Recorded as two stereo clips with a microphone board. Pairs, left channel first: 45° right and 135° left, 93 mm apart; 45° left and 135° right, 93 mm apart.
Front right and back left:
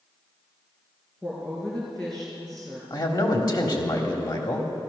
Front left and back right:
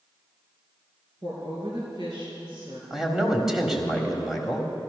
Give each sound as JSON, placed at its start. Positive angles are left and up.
{"t": 1.2, "sound": "a woman speaking", "azimuth_deg": -125, "distance_m": 4.0}
{"t": 2.9, "sound": "a man speaking", "azimuth_deg": -50, "distance_m": 1.6}